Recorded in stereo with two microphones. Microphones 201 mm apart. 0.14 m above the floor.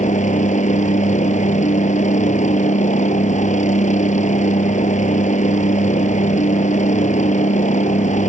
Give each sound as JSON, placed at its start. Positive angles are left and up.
{"t": 0.0, "sound": "a helicopter", "side_deg": 35}